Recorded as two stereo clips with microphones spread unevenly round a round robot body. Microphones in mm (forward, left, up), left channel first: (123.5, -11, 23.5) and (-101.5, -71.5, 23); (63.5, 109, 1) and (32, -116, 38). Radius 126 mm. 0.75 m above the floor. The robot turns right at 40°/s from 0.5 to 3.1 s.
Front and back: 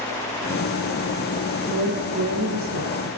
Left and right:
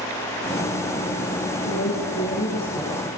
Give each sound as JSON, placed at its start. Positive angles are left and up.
{"t": 1.7, "sound": "a woman speaking", "azimuth_deg": 110, "distance_m": 10.0}